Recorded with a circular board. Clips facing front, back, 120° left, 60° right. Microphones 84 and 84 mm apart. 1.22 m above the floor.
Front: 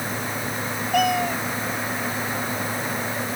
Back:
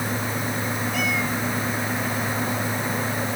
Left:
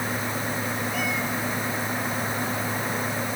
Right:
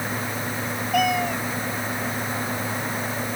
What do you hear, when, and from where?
0.9 s a cat meowing: 35° right